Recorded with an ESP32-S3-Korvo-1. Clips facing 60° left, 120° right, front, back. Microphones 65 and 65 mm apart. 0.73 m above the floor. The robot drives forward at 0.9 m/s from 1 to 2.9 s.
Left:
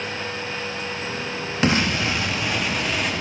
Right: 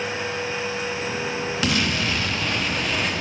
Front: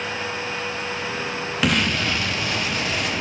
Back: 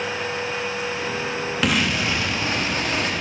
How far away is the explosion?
About 1.3 m.